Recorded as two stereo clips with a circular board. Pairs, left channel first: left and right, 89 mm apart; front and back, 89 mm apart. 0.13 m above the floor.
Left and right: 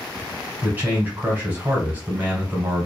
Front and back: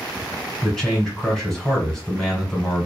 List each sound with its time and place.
0.6 s a man speaking: 75° right, 1.3 m